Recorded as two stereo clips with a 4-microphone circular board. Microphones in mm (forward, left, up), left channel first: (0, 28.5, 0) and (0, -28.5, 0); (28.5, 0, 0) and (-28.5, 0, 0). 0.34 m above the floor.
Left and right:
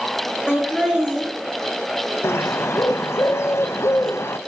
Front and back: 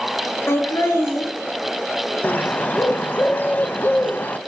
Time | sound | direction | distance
0.5 | laughter | 15° right | 5.5 m
2.2 | a bird | 55° left | 0.6 m